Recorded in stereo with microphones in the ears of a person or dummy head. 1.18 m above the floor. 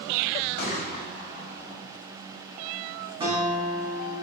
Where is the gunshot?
45° left (ahead or behind), 0.6 m.